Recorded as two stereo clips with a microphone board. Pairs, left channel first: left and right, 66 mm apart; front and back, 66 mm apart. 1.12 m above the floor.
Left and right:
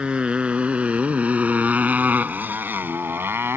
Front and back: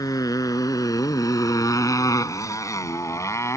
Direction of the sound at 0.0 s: 15° right.